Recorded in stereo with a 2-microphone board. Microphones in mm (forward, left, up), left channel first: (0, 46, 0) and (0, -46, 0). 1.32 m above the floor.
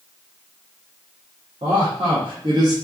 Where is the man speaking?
80° right, 0.8 m; by 2.8 s 40° right (ahead or behind), 0.9 m.